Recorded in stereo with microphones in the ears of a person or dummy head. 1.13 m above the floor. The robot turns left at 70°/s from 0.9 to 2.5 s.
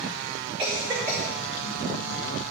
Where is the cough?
10° right (ahead or behind), 2.5 m; by 1.2 s 15° left (ahead or behind), 2.5 m.